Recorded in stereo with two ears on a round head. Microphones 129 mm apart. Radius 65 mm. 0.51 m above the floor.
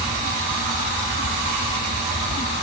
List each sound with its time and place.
Only background noise.